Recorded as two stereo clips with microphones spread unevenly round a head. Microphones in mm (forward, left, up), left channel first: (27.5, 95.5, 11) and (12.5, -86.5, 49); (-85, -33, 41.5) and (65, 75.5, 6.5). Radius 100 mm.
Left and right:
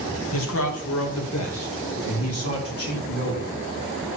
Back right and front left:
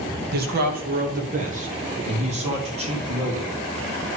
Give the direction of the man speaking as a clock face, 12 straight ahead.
10 o'clock.